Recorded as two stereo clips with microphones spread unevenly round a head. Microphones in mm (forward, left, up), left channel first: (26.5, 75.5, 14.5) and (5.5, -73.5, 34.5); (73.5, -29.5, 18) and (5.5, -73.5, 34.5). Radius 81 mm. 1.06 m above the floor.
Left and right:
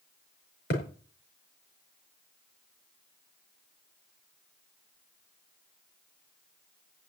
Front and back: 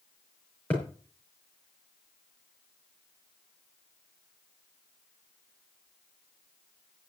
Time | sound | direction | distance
0.7 | a thud | 115° left | 5.5 m